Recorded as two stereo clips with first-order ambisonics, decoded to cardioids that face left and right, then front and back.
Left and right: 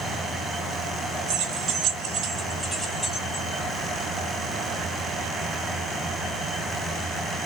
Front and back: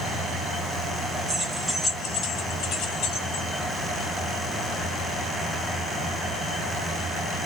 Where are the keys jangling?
105° right, 1.0 m; by 3.5 s 15° left, 1.4 m.